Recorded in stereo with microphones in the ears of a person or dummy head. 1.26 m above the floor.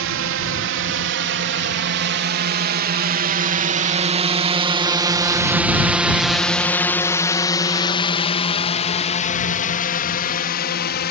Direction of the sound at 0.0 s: 60° right (ahead or behind).